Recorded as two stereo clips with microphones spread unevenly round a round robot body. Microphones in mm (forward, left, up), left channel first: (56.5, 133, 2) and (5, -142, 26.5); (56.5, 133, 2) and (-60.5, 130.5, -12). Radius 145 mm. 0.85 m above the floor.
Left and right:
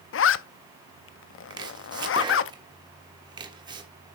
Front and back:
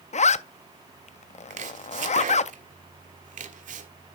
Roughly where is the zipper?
Ahead left.